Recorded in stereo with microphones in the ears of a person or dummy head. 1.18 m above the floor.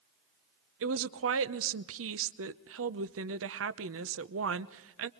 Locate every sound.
0.8 s a woman speaking: 60° right (ahead or behind), 0.9 m